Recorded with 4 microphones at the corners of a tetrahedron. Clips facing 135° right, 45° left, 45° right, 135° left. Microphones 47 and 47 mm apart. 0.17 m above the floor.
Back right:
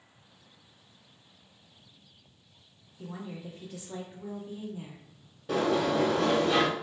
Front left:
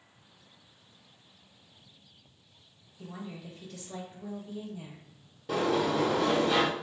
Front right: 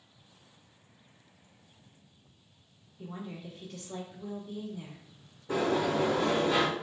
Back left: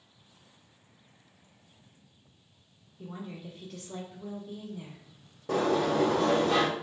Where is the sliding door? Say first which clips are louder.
Back right 1 dB, back left 2 dB; 135° left, 1.1 m.